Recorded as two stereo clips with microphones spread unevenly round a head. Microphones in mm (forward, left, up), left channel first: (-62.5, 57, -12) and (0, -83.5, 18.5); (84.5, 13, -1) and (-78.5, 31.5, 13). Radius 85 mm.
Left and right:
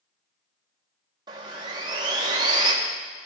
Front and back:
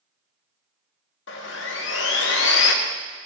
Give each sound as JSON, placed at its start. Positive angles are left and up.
{"t": 1.3, "sound": "sawing", "azimuth_deg": -5, "distance_m": 1.6}